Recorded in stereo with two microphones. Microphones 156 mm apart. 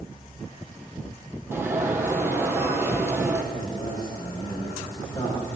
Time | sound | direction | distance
1.5 | an alarm | 15° right (ahead or behind) | 3.5 m
3.5 | a man speaking | 25° left (ahead or behind) | 10 m